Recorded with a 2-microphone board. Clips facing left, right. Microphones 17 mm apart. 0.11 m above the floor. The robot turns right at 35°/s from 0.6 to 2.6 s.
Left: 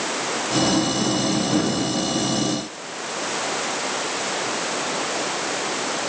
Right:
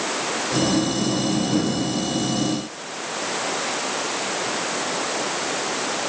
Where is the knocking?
I don't hear knocking.